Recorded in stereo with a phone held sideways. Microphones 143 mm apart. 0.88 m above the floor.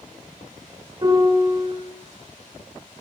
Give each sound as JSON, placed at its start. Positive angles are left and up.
{"t": 1.0, "sound": "a piano", "side_deg": -35, "distance_m": 1.4}